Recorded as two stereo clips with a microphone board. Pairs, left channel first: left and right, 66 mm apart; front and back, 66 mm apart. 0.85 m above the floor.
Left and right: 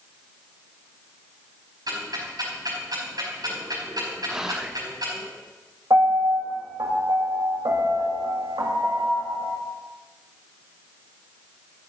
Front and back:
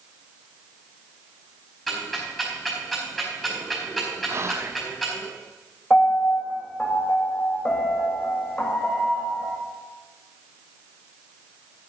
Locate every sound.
1.9 s ticking: 90° right, 4.5 m
4.3 s whispering: 165° right, 0.5 m
5.9 s a piano: 70° right, 1.9 m